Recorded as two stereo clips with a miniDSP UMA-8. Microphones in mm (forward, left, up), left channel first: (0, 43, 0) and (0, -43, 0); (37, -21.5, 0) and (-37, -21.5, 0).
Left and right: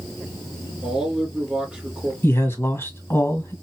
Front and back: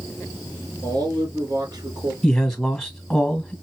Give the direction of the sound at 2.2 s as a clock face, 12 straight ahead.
9 o'clock.